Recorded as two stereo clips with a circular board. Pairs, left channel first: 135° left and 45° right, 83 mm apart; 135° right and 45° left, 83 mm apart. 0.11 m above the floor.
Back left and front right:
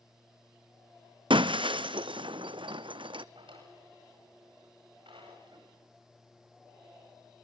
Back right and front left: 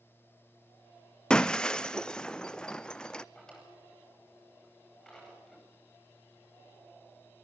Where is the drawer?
50° right, 9.5 m.